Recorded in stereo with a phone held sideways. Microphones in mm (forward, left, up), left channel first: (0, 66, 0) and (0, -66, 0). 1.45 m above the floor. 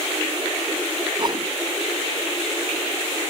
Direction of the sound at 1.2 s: 40° right (ahead or behind).